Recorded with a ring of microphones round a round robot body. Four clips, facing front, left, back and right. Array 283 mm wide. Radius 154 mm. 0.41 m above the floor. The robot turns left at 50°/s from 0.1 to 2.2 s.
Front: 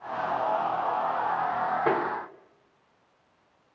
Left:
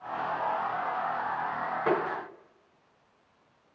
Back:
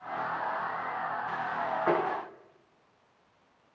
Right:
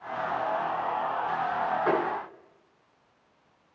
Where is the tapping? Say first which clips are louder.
Even, even; 10° left, 5.5 m; by 2.0 s straight ahead, 5.5 m.